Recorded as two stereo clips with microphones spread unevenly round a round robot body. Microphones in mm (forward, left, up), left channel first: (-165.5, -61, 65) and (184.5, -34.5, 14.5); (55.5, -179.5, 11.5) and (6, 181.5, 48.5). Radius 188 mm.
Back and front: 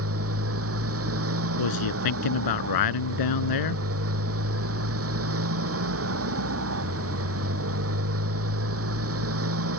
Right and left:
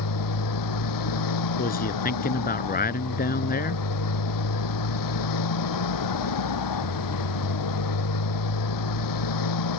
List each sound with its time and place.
0.0 s a motorcycle: 45° right
1.6 s a man speaking: 150° right